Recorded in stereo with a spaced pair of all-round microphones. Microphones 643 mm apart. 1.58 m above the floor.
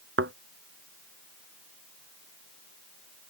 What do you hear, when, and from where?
0.2 s a thud: 20° right (ahead or behind)